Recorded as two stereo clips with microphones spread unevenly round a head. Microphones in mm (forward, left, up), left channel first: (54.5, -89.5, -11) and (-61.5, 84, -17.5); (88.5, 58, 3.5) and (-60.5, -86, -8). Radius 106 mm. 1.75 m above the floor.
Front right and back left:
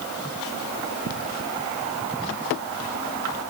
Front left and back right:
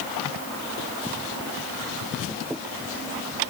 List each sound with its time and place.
Only background noise.